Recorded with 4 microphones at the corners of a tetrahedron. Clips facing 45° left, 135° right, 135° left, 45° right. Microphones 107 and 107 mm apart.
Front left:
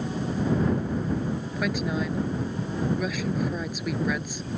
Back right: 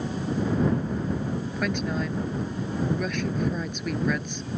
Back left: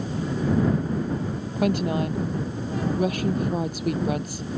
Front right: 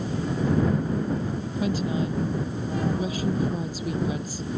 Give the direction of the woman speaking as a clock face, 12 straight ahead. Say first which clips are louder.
Front left 1 dB, back left 3 dB; 8 o'clock.